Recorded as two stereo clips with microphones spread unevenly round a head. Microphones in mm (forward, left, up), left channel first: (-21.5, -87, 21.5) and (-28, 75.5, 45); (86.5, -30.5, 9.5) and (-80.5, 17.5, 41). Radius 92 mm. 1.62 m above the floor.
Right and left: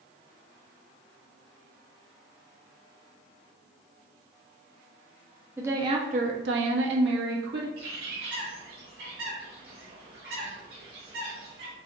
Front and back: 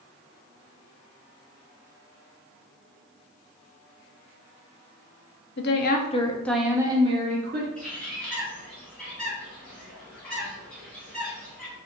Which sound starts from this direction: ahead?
A woman speaking, at 5.6 s.